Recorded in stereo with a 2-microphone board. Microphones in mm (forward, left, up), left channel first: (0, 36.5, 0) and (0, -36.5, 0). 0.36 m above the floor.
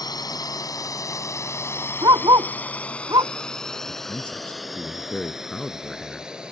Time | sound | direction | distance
0.0 | a drone | 60° left (ahead or behind) | ?
2.0 | a dog barking | 70° right (ahead or behind) | ?
3.9 | a man speaking | 15° left (ahead or behind) | ?